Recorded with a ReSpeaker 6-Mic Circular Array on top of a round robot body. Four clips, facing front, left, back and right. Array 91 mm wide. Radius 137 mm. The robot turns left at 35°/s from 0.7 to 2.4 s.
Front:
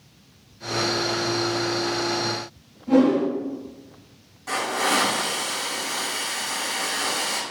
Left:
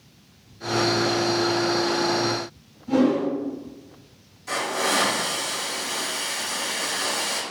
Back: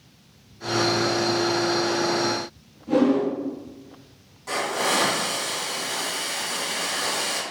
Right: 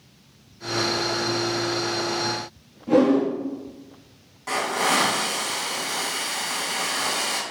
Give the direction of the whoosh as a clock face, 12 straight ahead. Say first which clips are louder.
Right 2 dB, front 2 dB; 3 o'clock.